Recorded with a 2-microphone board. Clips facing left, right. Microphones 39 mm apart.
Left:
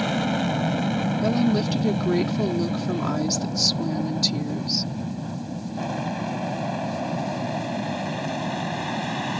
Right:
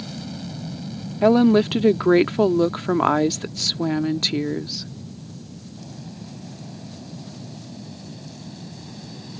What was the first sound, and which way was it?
An aircraft, 50° left (ahead or behind).